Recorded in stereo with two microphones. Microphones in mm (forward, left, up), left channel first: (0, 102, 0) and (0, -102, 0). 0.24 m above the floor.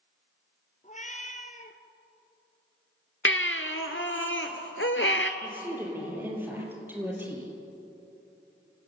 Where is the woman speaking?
10° right (ahead or behind), 5.5 m.